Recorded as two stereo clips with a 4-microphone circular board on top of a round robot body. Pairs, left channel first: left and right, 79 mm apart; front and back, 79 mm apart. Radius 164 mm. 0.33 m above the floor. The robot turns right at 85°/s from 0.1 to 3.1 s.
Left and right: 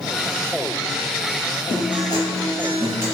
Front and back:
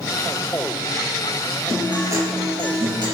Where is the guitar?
90° left, 2.5 m; by 3.1 s 150° right, 2.5 m.